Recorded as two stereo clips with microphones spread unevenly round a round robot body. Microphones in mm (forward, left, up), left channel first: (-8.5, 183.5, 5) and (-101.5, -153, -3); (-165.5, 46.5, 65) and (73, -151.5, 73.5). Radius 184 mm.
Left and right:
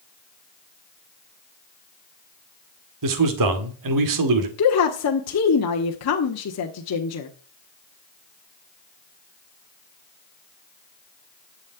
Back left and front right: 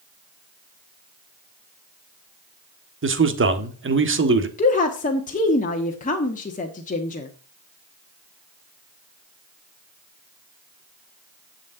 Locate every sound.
3.0 s a man speaking: 85° right, 1.9 m
4.6 s a woman speaking: 90° left, 1.4 m